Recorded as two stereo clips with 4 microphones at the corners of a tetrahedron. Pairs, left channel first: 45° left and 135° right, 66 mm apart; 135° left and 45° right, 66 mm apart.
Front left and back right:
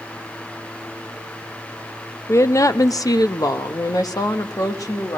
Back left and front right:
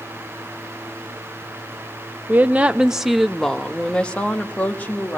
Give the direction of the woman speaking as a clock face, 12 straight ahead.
12 o'clock.